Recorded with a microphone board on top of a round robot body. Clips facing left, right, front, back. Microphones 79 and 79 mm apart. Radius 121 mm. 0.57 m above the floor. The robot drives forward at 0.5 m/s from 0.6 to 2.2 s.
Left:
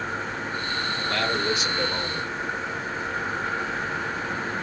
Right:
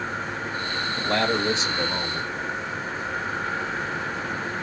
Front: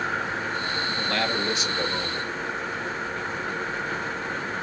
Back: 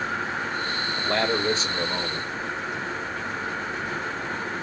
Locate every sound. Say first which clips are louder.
1.0 s a man speaking: right 4 dB, back 4 dB; 120° right, 1.1 m; by 2.3 s 150° right, 1.4 m